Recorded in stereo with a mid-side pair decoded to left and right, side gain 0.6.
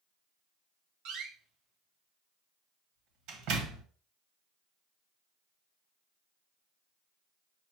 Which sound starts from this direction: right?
A door slam, at 1.1 s.